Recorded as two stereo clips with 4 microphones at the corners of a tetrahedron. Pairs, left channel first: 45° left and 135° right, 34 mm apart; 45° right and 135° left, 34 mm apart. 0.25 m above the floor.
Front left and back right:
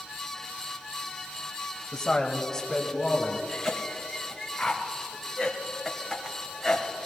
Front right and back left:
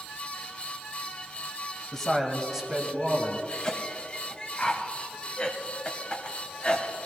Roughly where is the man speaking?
Ahead.